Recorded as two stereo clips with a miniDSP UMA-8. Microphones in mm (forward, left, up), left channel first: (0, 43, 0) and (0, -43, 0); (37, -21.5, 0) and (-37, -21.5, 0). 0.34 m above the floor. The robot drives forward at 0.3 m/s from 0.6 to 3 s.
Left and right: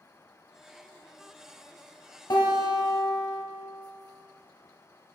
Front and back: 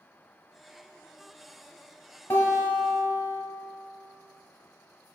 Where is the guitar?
65° left, 1.3 m; by 3.4 s 70° left, 1.3 m.